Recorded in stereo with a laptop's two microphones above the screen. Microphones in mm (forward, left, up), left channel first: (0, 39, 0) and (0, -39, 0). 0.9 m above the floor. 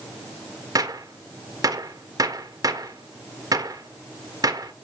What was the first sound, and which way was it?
A gunshot, 50° right (ahead or behind).